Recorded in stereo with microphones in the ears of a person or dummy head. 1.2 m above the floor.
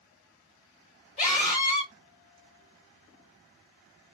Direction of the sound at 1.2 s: 35° left (ahead or behind).